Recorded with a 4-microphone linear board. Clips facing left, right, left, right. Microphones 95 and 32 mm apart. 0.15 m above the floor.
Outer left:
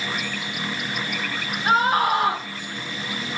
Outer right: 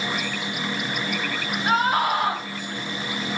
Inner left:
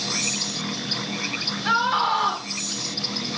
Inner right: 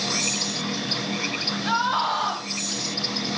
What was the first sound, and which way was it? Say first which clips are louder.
A scream: outer left 2 dB, inner left 3 dB; 30° left (ahead or behind).